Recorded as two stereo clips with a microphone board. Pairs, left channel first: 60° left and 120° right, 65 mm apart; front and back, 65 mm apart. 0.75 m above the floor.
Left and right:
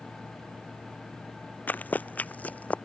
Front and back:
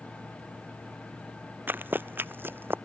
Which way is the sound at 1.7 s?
120° left.